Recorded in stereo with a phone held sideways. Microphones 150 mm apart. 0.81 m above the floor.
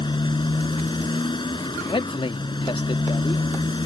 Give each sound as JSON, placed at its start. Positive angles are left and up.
{"t": 0.0, "sound": "a motorcycle", "side_deg": 35}
{"t": 1.9, "sound": "a man speaking", "side_deg": 40}